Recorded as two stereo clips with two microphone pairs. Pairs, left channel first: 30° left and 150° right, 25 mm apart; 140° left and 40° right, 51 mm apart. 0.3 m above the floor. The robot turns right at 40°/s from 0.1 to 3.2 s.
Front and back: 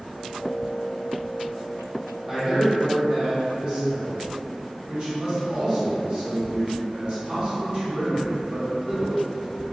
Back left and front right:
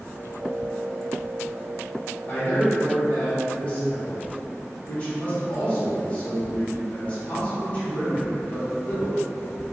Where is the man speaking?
150° left, 1.5 m; by 9.6 s 175° right, 1.5 m.